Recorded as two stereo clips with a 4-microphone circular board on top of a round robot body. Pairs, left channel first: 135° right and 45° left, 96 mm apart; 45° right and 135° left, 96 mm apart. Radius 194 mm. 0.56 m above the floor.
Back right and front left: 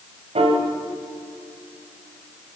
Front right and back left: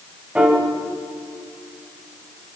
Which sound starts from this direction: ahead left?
A piano, at 0.3 s.